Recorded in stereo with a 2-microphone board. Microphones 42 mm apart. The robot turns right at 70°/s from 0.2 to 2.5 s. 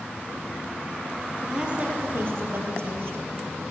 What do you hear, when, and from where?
1.4 s a woman speaking: 170° right, 2.5 m; by 3.2 s 95° right, 2.5 m